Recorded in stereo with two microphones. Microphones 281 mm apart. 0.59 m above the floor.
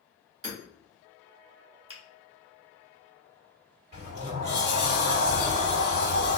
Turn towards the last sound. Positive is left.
turn(degrees=-35)  # may be behind; listen again after turning